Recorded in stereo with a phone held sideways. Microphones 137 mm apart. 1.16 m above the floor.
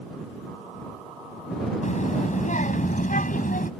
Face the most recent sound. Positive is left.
turn(degrees=75)  # may be behind; listen again after turning